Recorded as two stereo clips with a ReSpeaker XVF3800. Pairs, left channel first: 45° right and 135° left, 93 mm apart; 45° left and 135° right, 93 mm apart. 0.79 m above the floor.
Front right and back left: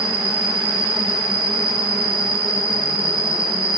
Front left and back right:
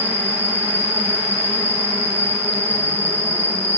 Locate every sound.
0.0 s an insect: 105° left, 1.5 m